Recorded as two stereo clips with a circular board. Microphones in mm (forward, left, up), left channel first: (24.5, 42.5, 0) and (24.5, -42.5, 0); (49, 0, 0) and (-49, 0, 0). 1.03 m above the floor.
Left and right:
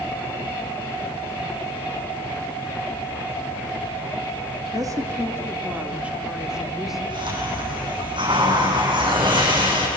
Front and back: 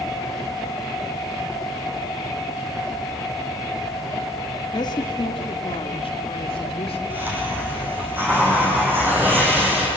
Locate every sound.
4.7 s a woman speaking: 45° right, 1.8 m; by 7.0 s 5° right, 3.5 m
7.1 s a hiss: 110° right, 7.5 m